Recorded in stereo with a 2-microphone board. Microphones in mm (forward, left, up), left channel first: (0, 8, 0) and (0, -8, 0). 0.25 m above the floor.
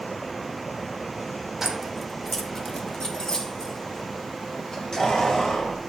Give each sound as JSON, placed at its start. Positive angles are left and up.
{"t": 1.6, "sound": "keys jangling", "side_deg": -25, "distance_m": 1.0}